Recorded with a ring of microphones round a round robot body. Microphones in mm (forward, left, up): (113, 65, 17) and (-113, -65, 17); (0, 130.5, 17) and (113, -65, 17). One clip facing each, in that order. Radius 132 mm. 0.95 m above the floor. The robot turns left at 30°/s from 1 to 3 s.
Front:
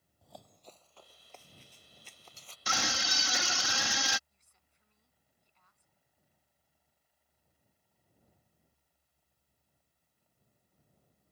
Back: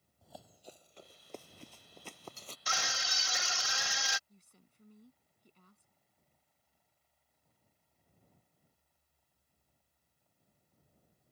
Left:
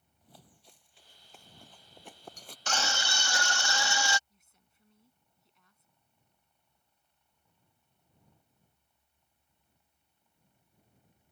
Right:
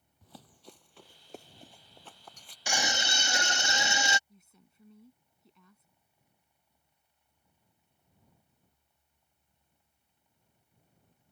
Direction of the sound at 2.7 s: 20° left.